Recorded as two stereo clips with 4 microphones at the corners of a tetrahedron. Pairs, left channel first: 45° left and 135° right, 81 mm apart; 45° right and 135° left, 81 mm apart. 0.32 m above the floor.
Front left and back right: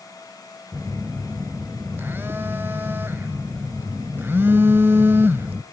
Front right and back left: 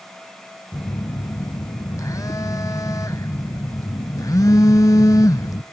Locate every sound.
0.7 s a phone buzzing: 80° right, 0.7 m